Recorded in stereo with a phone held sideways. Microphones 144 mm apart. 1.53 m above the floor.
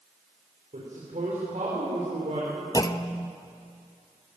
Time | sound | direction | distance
0.7 | a woman speaking | 60° right (ahead or behind) | 6 m
2.7 | a clunk | 30° left (ahead or behind) | 0.8 m